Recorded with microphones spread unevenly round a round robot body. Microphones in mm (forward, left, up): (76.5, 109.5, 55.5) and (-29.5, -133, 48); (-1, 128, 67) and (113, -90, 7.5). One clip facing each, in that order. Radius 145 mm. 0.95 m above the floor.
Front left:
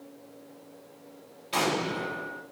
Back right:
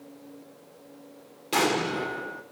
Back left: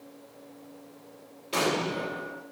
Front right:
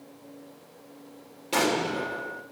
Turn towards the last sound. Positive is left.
turn(degrees=-90)